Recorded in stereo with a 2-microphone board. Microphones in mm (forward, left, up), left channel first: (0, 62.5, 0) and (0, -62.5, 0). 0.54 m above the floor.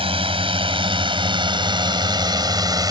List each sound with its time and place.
0.0 s a drone: 50° right (ahead or behind); by 2.9 s 30° right (ahead or behind)